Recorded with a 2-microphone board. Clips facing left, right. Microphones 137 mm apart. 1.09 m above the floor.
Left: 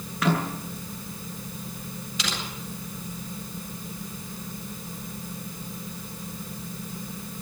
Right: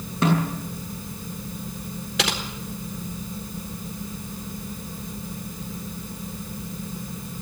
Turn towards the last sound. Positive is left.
turn(degrees=-75)  # may be behind; listen again after turning